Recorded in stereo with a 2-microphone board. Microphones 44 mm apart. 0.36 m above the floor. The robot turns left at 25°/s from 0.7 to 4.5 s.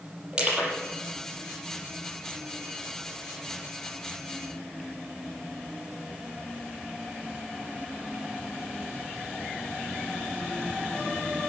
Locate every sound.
0.3 s crushing: 20° right (ahead or behind), 6.5 m